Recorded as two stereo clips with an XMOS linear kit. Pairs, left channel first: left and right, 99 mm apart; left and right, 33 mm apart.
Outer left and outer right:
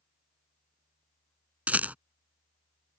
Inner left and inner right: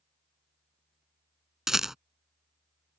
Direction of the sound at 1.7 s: 15° right (ahead or behind).